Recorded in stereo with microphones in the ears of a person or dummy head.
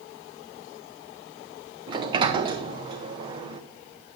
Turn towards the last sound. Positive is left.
turn(degrees=-20)  # may be behind; listen again after turning